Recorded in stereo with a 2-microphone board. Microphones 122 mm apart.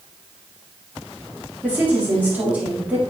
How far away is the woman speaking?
About 3.5 m.